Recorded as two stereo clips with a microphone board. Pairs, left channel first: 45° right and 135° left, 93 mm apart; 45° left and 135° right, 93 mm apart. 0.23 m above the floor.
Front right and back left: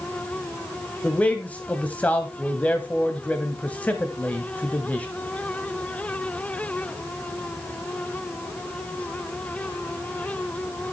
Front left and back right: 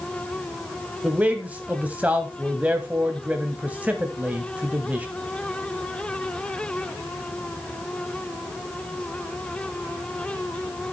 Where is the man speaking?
85° right, 1.0 m.